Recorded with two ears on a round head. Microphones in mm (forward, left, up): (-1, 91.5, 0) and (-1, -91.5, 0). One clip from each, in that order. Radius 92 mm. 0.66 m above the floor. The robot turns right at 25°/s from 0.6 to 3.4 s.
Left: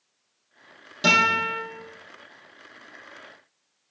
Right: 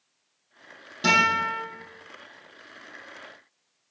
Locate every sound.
1.0 s a guitar: 20° left (ahead or behind), 4 m; by 1.6 s 5° left (ahead or behind), 4 m